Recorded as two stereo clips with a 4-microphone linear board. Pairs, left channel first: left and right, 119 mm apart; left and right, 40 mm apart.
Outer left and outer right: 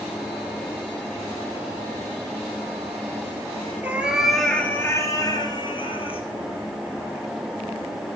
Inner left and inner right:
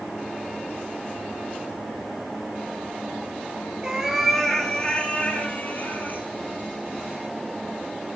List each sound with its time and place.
3.8 s a cat meowing: 15° right (ahead or behind), 2 m; by 6.2 s 50° left (ahead or behind), 3 m